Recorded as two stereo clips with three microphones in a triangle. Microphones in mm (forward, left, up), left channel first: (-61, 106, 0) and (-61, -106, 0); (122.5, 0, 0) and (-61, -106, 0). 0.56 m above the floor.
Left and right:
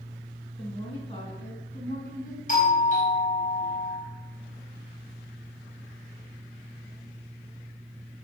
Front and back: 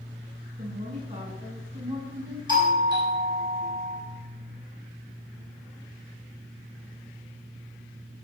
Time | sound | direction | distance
0.6 | a woman speaking | 155° left | 6 m
2.5 | a doorbell | 145° left | 5 m